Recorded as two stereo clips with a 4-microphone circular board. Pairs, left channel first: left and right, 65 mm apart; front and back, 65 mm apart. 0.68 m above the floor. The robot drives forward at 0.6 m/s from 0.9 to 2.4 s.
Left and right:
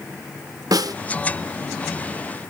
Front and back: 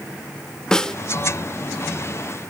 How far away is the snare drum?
About 0.6 m.